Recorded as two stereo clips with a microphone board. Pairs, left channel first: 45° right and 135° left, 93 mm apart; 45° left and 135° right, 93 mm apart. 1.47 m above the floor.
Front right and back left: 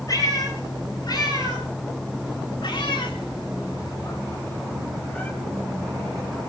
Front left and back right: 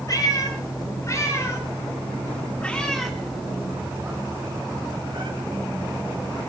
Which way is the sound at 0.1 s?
Straight ahead.